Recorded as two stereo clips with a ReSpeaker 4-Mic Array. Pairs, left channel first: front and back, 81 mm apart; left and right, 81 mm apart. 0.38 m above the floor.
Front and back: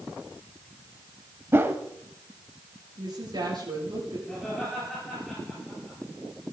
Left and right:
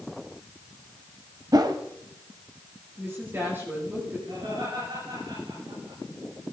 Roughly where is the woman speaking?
Behind right.